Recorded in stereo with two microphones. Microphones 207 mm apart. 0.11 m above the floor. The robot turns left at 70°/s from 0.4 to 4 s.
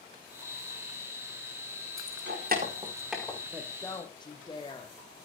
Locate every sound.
2.0 s keys jangling: 80° right, 5 m; by 3.4 s 15° left (ahead or behind), 5 m
3.5 s a woman speaking: 165° right, 5 m; by 5.0 s 160° left, 5 m